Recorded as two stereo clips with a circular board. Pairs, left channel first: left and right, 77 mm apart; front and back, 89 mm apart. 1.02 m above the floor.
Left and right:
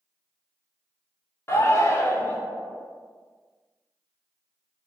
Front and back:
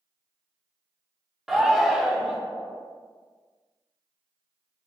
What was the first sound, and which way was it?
A shout, 95° left.